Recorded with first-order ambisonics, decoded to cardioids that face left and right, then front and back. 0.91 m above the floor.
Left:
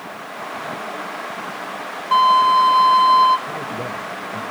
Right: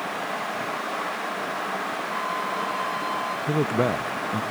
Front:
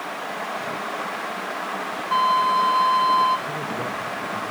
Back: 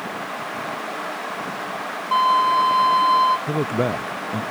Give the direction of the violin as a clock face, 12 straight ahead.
9 o'clock.